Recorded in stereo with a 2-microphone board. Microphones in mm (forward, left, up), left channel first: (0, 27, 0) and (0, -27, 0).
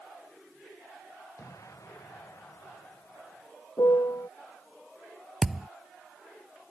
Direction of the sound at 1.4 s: 65° left (ahead or behind).